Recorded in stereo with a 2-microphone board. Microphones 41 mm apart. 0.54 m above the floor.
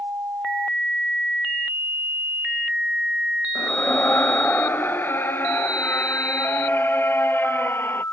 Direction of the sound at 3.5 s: 60° left (ahead or behind).